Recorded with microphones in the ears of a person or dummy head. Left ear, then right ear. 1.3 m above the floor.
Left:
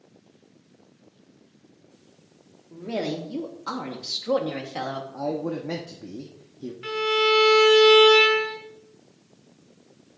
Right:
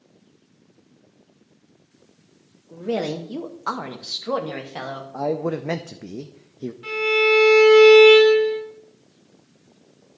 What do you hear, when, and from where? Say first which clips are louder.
2.7 s a woman speaking: right 4 dB; 75° right (ahead or behind), 0.9 m; by 5.0 s 5° right (ahead or behind), 1.4 m
5.1 s a man speaking: right 7 dB; 70° right (ahead or behind), 0.6 m
6.8 s a violin: right 3 dB; 20° left (ahead or behind), 2.5 m